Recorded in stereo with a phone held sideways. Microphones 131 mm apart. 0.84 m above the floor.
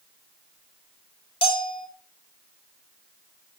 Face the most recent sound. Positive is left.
turn(degrees=45)  # may be behind; listen again after turning